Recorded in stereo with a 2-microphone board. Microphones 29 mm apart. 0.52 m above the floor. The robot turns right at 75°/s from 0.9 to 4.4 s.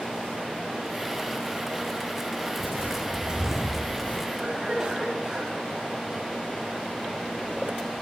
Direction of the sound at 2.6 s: 65° right (ahead or behind).